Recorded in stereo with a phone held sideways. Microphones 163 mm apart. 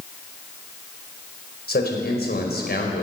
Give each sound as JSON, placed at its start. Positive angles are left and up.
{"t": 1.7, "sound": "a man speaking", "side_deg": 80, "distance_m": 5.0}